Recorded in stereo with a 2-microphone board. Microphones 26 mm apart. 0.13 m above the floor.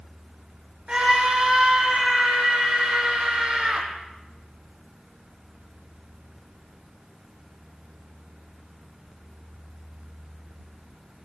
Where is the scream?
30° right (ahead or behind), 5 m.